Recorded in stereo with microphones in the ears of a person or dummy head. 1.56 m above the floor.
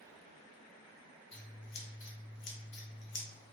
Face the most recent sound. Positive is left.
turn(degrees=60)  # may be behind; listen again after turning